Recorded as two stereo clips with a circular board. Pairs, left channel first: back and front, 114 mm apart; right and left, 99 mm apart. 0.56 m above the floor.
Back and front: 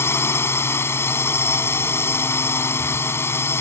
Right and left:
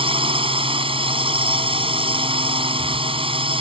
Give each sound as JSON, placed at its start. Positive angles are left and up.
{"t": 0.0, "sound": "a drone", "azimuth_deg": 110}